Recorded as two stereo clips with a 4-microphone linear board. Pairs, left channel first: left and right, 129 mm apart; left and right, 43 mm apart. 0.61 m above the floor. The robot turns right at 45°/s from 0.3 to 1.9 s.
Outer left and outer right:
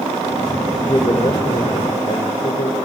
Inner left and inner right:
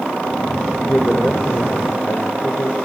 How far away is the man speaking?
About 3 m.